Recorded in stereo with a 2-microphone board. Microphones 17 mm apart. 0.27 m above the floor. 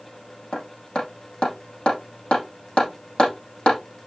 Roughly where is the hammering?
Left.